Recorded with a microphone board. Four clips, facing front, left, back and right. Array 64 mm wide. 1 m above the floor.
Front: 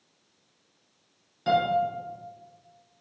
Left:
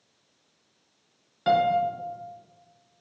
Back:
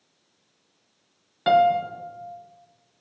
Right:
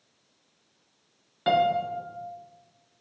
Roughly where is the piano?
Behind.